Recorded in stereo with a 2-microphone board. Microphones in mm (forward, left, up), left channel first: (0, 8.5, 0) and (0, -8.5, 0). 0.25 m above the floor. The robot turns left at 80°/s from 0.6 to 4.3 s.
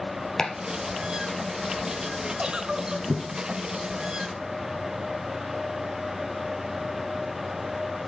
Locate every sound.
0.4 s chopping: 40° left (ahead or behind), 2.5 m; by 3.2 s 10° right (ahead or behind), 2.5 m
2.4 s a giggle: 90° right, 0.9 m; by 3.1 s 145° right, 0.9 m